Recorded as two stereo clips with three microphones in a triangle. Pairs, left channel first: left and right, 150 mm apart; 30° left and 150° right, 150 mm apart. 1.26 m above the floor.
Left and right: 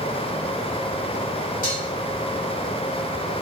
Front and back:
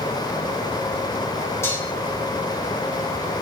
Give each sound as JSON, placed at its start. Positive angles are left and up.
{"t": 1.6, "sound": "dishes clattering", "azimuth_deg": 100, "distance_m": 3.0}